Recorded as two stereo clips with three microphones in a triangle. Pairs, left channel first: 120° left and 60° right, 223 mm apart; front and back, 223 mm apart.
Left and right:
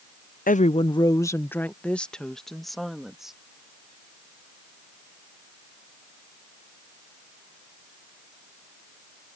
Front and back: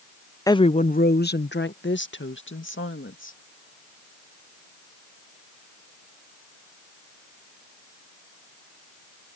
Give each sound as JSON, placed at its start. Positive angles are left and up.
{"t": 0.5, "sound": "a woman speaking", "azimuth_deg": 75}